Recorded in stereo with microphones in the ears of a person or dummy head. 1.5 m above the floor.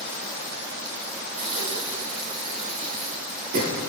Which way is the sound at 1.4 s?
45° right (ahead or behind).